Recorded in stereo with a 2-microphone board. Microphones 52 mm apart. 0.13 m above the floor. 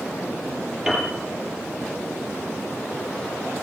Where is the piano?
5° right (ahead or behind), 4 m.